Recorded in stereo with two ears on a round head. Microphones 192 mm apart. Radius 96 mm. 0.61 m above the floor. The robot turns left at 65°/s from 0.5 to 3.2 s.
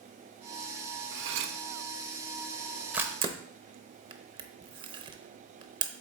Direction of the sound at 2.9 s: 5° right (ahead or behind).